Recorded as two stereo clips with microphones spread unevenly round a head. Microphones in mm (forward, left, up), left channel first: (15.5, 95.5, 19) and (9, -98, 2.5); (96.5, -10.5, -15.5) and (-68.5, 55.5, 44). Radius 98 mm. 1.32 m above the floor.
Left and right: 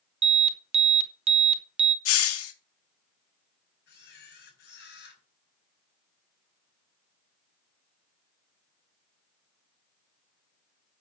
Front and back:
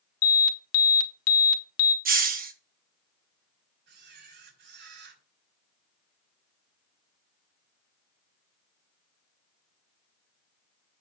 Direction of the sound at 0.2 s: 30° right.